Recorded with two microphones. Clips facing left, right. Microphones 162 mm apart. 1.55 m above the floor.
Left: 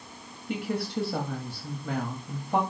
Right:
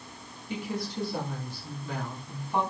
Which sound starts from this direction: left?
A woman speaking, at 0.5 s.